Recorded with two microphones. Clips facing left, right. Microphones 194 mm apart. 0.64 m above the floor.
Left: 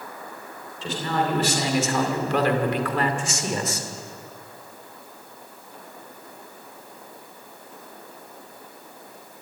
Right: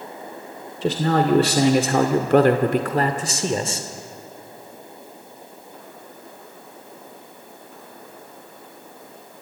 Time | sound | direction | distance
0.8 | a man speaking | 65° right (ahead or behind) | 1.9 m